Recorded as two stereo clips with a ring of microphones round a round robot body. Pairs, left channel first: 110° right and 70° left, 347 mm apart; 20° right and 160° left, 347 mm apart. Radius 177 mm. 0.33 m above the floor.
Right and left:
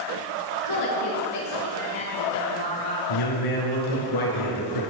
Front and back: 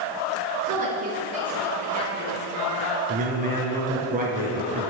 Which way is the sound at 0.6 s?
135° right.